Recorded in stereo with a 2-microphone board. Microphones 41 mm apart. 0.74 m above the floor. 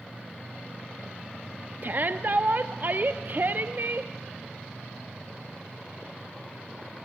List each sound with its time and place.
1.8 s a shout: 45° right (ahead or behind), 0.7 m